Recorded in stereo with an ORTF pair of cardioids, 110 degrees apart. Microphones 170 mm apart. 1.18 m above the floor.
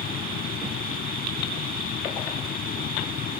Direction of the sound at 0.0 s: 55° left.